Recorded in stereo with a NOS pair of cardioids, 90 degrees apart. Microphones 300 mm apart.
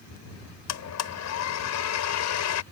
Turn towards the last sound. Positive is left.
turn(degrees=65)